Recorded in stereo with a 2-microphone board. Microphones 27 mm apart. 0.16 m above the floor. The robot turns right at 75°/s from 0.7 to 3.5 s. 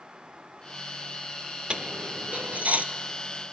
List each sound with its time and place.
1.7 s a dropped coin: 40° right (ahead or behind), 0.5 m; by 2.8 s 55° right (ahead or behind), 0.5 m